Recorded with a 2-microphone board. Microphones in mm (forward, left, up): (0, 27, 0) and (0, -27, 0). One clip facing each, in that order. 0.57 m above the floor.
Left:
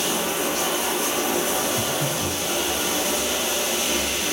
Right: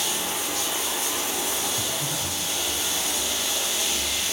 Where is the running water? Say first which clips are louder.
Left 5 dB; 70° left (ahead or behind), 7.5 m.